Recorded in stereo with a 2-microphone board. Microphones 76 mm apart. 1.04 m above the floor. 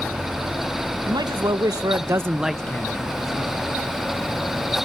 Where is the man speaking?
65° right (ahead or behind), 1.3 m; by 3.5 s 50° left (ahead or behind), 1.0 m.